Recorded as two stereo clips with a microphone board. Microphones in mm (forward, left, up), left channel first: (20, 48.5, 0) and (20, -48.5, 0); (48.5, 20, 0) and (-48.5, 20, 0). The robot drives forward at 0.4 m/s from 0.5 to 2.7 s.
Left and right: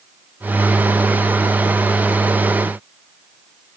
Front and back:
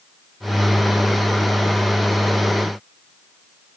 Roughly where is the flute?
No flute in this recording.